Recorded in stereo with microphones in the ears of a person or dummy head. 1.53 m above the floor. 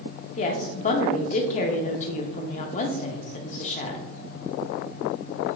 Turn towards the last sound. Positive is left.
turn(degrees=35)  # may be behind; listen again after turning